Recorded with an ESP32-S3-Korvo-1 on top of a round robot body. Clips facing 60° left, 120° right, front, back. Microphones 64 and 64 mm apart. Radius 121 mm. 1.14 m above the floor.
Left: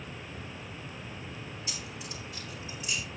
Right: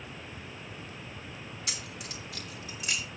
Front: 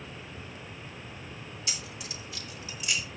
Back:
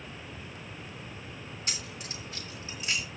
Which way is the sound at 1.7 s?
135° right.